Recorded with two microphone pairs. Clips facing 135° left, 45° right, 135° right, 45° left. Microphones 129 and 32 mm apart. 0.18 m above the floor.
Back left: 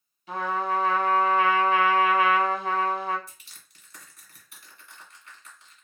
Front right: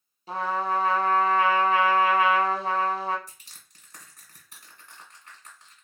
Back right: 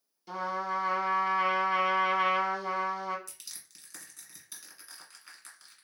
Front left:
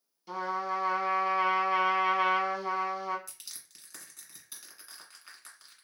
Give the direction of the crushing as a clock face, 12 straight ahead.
1 o'clock.